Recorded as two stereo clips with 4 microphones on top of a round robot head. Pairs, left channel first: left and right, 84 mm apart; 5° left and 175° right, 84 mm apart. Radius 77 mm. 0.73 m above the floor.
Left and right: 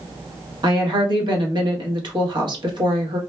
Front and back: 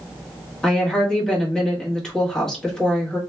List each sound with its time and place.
0.6 s a woman speaking: 75° right, 1.2 m